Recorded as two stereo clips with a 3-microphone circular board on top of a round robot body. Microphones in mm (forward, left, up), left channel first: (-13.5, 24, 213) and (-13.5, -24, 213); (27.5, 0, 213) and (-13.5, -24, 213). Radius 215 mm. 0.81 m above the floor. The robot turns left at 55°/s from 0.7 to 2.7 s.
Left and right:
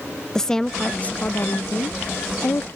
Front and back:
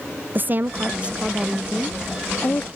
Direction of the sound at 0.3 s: 170° left.